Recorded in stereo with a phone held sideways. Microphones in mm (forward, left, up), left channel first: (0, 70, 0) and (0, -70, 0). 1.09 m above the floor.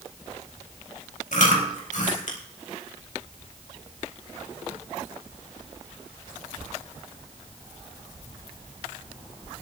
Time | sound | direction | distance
1.3 | chewing | 65° left (ahead or behind) | 4 m